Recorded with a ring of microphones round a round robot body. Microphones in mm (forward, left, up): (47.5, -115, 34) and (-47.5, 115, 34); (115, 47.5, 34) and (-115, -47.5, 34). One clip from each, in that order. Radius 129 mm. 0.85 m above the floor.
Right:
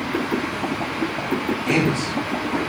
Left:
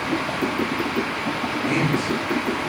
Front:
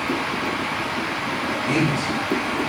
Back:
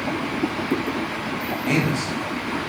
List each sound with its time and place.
1.7 s a man speaking: 115° right, 2 m